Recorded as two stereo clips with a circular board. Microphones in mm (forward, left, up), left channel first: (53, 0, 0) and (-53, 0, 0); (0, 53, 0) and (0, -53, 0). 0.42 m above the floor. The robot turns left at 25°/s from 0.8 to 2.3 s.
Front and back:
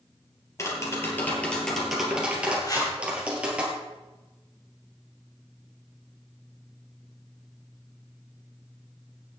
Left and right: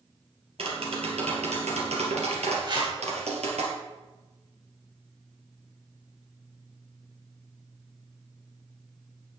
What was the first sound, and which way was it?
Tapping, 65° right.